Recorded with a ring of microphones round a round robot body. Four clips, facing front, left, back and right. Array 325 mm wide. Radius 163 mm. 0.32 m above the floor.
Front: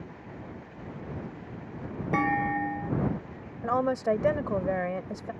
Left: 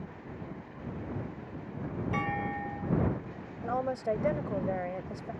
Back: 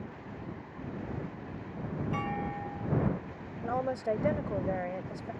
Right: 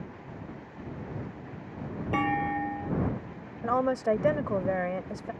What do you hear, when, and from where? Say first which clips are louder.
2.1 s a clunk: right 7 dB, front 12 dB; 35° right
3.6 s a woman speaking: right 5 dB, front 5 dB; 50° right